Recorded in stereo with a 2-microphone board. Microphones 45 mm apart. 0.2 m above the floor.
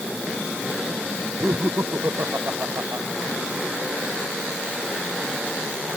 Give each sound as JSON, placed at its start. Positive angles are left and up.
{"t": 1.4, "sound": "laughter", "side_deg": -65}